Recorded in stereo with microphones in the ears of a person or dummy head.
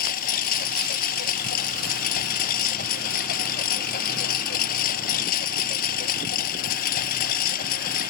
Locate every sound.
0.0 s a lawn mower: 55° left (ahead or behind)